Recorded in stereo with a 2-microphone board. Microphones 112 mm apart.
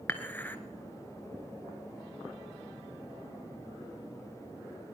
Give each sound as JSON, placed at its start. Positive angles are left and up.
{"t": 0.1, "sound": "dishes clattering", "side_deg": 15, "distance_m": 1.0}